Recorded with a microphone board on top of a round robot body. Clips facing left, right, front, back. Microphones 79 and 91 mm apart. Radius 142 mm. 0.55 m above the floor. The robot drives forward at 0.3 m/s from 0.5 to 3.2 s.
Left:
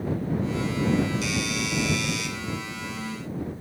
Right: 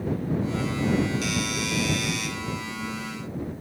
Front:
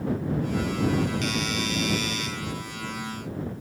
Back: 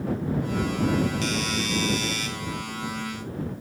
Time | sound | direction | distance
1.2 | a doorbell | 125° right | 4 m